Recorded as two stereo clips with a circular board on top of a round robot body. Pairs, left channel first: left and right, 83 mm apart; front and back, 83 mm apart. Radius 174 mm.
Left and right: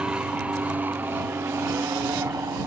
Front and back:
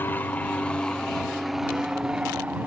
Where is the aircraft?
25° right; by 2.7 s 115° right.